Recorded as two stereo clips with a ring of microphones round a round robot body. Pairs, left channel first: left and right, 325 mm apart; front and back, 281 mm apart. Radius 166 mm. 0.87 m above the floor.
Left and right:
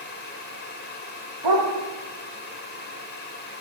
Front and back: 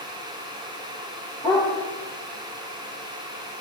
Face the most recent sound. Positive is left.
turn(degrees=-80)